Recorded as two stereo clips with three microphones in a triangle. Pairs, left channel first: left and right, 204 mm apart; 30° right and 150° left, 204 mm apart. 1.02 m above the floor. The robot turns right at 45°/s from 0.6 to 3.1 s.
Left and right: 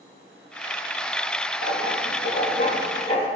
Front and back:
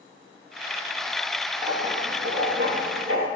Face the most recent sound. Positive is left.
turn(degrees=155)